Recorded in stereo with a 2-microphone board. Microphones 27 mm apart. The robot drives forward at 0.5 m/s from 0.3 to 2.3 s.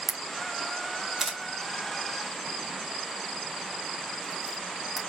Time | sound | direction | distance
0.1 | a camera shutter | 10° right (ahead or behind) | 0.8 m